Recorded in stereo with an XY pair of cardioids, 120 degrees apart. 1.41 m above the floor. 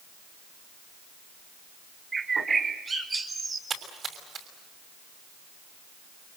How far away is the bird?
About 4.5 m.